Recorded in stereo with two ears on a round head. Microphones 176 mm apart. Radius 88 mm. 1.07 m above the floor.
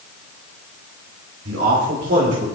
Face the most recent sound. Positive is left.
turn(degrees=-50)  # may be behind; listen again after turning